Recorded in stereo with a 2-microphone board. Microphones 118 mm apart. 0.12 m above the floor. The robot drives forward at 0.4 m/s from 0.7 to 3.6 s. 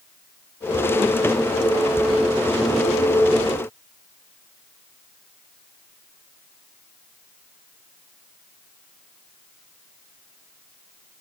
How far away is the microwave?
I don't hear a microwave.